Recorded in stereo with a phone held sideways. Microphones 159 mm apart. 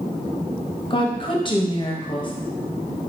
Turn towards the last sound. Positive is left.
turn(degrees=30)  # may be behind; listen again after turning